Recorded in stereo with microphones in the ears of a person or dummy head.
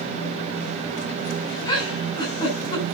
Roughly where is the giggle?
Left.